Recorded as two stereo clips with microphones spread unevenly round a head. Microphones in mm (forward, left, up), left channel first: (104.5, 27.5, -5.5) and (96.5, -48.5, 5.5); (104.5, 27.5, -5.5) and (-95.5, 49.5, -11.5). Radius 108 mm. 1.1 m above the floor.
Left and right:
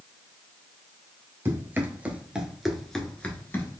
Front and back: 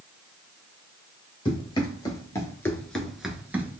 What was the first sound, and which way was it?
Running footsteps, 65° right.